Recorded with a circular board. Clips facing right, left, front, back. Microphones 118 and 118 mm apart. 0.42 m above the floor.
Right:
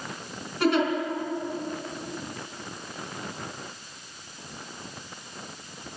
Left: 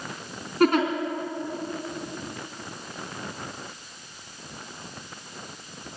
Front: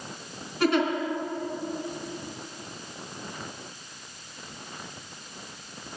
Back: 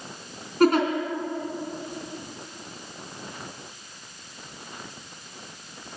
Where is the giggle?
135° left, 3.5 m.